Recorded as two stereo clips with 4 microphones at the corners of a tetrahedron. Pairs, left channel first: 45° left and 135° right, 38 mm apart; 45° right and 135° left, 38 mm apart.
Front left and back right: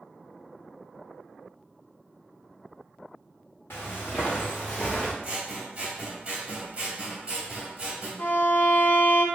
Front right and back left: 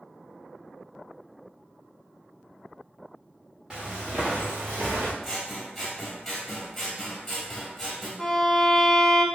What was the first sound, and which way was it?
Footsteps, 65° left.